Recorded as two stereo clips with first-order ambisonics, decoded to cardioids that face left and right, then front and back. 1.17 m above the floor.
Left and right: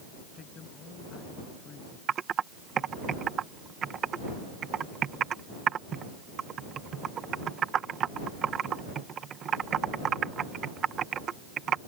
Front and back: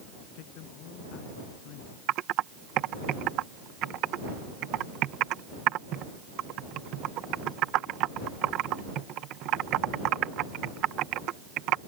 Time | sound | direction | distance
0.3 | a man speaking | 25° left | ?
2.1 | typing on a keyboard | 145° right | ?